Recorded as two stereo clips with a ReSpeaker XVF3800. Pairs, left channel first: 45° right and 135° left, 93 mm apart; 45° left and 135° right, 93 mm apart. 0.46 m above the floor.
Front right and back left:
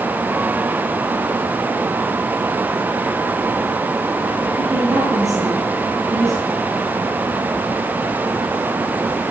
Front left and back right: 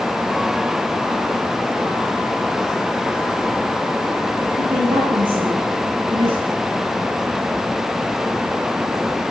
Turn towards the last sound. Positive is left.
turn(degrees=-170)